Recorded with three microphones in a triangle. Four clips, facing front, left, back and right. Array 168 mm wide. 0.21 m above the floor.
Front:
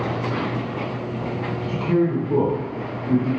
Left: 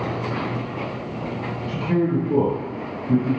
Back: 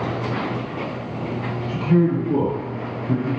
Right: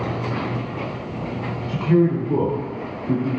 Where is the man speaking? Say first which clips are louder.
Right 4 dB, back 2 dB; 80° right, 1.7 m; by 3.3 s 125° right, 1.9 m.